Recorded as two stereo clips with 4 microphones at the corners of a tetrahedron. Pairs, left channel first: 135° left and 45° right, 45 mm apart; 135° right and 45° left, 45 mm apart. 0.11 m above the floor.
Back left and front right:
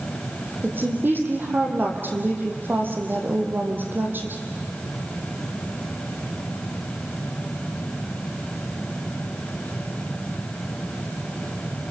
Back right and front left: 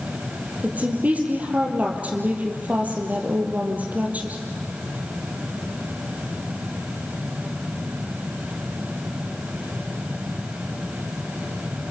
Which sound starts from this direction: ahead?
A woman speaking, at 0.6 s.